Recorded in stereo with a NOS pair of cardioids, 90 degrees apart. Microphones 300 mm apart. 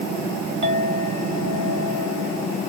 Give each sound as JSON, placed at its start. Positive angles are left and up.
{"t": 0.6, "sound": "a clink", "azimuth_deg": -35, "distance_m": 1.9}